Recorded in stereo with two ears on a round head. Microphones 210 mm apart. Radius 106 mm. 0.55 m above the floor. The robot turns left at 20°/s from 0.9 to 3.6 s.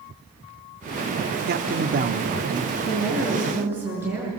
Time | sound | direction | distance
1.5 | a man speaking | 45° right (ahead or behind) | 0.9 m
2.8 | a woman speaking | 5° left (ahead or behind) | 7 m